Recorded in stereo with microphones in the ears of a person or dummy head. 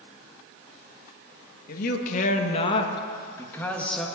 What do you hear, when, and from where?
1.7 s a man speaking: 50° left (ahead or behind), 1.6 m; by 4.1 s centre (ahead or behind), 1.8 m